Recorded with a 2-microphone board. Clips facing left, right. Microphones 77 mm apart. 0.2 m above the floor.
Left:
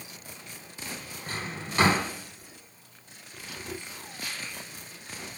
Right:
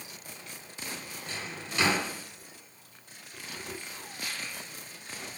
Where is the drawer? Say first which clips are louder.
Left 4 dB; 40° left (ahead or behind), 0.9 m.